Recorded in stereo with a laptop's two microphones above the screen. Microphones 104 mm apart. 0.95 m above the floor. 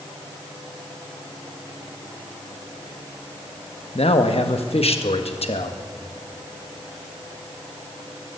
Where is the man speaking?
70° left (ahead or behind), 0.8 m.